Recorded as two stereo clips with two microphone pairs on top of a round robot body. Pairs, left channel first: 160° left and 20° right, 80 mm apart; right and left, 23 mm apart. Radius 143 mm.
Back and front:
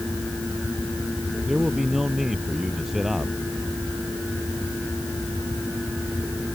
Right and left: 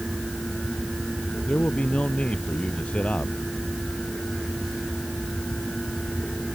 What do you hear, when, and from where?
1.5 s a man speaking: 105° right